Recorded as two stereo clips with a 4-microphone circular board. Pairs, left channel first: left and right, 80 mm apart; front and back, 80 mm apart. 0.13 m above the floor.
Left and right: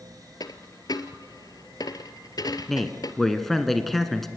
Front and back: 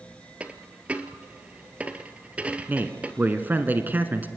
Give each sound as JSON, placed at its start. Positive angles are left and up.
{"t": 0.4, "sound": "a dropped coin", "azimuth_deg": 110, "distance_m": 0.9}
{"t": 2.7, "sound": "a man speaking", "azimuth_deg": 175, "distance_m": 1.1}